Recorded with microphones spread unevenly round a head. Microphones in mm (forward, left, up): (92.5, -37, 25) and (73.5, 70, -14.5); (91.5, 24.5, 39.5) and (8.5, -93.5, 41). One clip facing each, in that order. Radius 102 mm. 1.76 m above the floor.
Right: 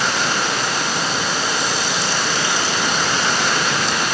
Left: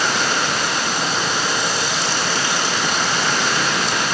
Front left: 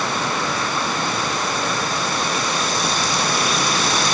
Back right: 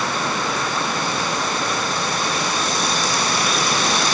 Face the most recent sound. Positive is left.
No sound to turn to.